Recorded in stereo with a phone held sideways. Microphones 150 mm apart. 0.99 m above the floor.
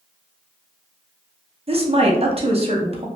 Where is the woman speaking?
40° right (ahead or behind), 0.7 m.